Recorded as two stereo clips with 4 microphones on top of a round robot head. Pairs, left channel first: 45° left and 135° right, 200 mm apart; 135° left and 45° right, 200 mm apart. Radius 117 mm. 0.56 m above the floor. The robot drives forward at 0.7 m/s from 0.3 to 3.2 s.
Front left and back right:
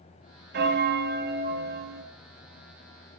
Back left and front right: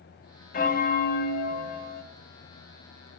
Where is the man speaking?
No man speaking in this recording.